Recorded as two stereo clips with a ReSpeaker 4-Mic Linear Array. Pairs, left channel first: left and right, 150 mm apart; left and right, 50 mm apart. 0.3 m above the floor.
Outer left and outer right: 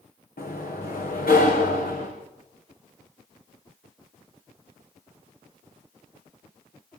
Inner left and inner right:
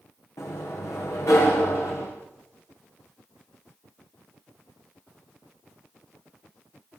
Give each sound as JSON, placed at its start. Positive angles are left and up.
{"t": 0.4, "sound": "a sliding door", "side_deg": 80, "distance_m": 6.0}